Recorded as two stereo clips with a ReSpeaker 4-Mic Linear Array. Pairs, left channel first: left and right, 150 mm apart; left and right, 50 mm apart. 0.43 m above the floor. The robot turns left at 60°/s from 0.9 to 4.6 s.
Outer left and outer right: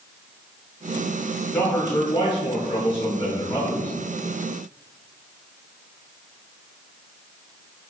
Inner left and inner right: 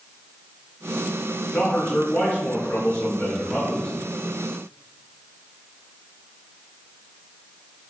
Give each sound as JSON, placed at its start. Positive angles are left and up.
{"t": 1.5, "sound": "a man speaking", "azimuth_deg": 160, "distance_m": 1.0}